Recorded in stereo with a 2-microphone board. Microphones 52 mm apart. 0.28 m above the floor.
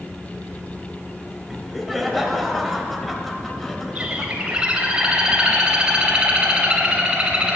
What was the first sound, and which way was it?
Laughter, centre (ahead or behind).